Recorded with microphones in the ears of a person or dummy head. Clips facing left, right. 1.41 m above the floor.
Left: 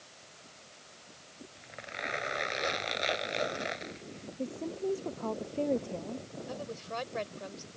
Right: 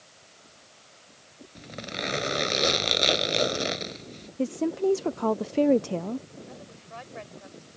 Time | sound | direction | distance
1.6 | a zipper | 55° right (ahead or behind) | ?
4.4 | a woman speaking | 75° right (ahead or behind) | ?
6.5 | a woman speaking | 60° left (ahead or behind) | ?